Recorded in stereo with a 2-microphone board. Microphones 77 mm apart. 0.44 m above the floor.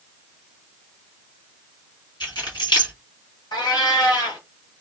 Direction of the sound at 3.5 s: 75° left (ahead or behind).